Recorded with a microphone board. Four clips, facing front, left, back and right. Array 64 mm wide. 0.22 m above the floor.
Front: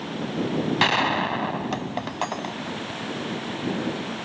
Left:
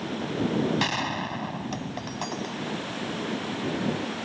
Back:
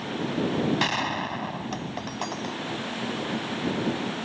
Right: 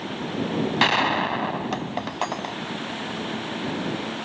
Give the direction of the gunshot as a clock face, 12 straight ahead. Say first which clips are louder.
Right 7 dB, front 5 dB; 2 o'clock.